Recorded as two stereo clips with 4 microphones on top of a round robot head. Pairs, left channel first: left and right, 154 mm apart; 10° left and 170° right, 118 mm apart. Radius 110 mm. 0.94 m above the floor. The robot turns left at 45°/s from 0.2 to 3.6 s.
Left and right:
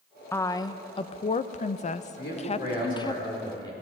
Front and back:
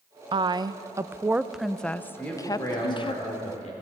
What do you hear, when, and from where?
0.3 s a woman speaking: 160° left, 0.5 m; by 3.2 s 30° left, 0.5 m
2.2 s a man speaking: 90° left, 3.5 m; by 3.7 s 25° left, 3.5 m